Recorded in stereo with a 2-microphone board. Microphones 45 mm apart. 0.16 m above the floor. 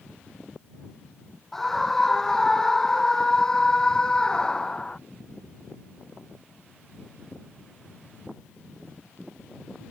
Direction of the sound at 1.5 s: 5° left (ahead or behind).